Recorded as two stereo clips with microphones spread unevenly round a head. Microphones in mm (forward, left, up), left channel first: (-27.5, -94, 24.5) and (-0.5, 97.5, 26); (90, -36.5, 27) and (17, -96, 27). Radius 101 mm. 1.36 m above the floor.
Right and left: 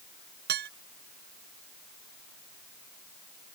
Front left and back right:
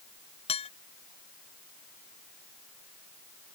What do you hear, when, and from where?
0.5 s dishes clattering: 40° left